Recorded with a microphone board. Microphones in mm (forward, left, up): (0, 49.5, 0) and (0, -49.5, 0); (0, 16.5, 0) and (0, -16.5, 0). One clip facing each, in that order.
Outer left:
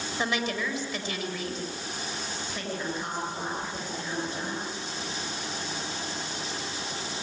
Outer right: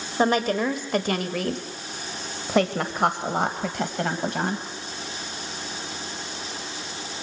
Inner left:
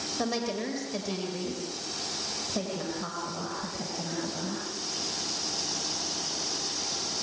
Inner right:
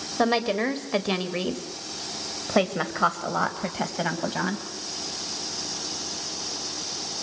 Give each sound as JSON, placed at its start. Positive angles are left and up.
{"t": 0.2, "sound": "a woman speaking", "side_deg": -40, "distance_m": 2.5}